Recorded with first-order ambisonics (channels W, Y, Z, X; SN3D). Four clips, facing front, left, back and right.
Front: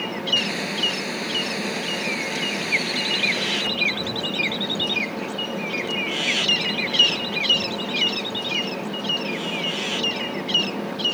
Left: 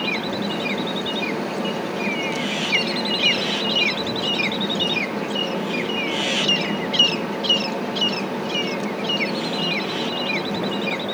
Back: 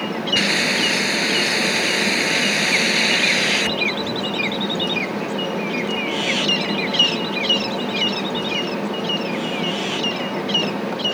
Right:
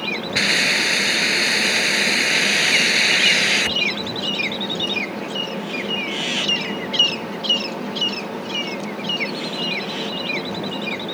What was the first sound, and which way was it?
A hiss, 120° right.